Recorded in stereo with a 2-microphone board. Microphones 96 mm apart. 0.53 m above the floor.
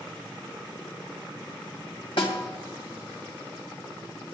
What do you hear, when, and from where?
2.2 s a snare drum: 70° left (ahead or behind), 2.5 m